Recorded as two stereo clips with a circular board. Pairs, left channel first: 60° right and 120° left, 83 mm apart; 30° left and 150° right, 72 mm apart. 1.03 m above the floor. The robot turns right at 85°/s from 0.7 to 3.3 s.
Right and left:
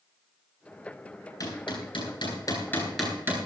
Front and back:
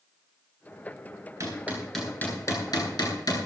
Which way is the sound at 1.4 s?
105° right.